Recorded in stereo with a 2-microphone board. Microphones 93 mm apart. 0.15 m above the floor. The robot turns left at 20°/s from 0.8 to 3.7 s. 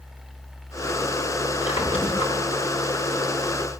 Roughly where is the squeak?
Left.